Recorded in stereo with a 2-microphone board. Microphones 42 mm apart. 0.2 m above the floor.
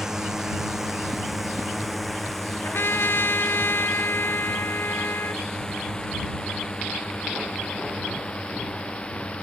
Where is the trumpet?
70° left (ahead or behind).